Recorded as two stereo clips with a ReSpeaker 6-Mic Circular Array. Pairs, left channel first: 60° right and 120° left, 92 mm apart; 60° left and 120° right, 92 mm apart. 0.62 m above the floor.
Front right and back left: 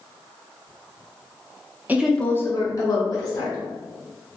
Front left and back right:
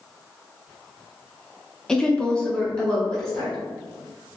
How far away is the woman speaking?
About 0.5 m.